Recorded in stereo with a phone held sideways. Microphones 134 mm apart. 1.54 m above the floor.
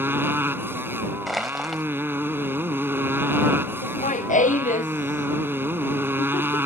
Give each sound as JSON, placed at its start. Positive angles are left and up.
{"t": 0.0, "sound": "a motorcycle", "side_deg": -15}
{"t": 1.3, "sound": "crushing", "side_deg": 0}
{"t": 3.8, "sound": "laughter", "side_deg": 70}